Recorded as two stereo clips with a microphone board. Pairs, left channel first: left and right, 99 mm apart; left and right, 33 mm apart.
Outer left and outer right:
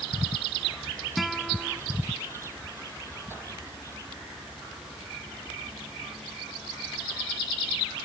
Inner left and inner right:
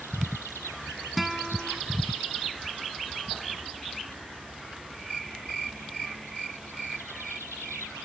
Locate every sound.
1.2 s a guitar: centre (ahead or behind)